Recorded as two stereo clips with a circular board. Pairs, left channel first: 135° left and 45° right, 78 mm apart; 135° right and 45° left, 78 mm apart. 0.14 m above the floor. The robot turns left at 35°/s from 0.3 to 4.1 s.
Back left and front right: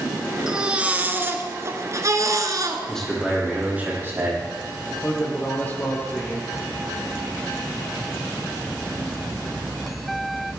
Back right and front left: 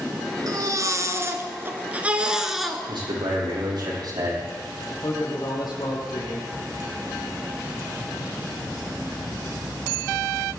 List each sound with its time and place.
0.5 s a baby crying: 35° left, 1.7 m; by 2.8 s 45° right, 1.7 m
2.9 s a man speaking: 55° left, 6.5 m; by 4.4 s 15° left, 6.5 m
5.0 s a man speaking: 160° right, 4.5 m